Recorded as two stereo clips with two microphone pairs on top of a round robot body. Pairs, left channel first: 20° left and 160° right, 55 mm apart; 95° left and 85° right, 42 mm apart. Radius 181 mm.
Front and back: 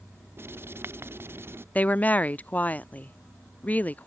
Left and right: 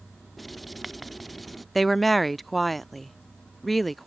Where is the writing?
Straight behind.